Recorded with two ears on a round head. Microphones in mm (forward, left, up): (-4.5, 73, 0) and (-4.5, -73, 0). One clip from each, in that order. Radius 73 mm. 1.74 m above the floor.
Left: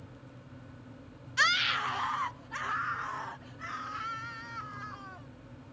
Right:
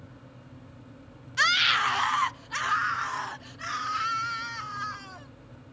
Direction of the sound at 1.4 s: Centre (ahead or behind).